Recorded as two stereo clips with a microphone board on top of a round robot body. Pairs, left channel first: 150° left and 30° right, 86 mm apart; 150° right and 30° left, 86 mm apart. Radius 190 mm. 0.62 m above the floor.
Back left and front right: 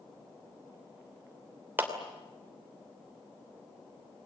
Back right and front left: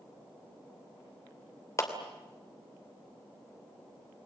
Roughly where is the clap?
Right.